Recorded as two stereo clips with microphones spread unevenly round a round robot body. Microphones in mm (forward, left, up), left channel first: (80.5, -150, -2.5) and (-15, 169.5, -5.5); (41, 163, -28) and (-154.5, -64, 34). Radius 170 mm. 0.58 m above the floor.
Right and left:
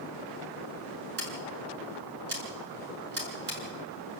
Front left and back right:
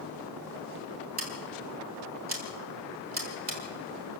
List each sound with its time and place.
1.2 s scissors: 165° left, 6 m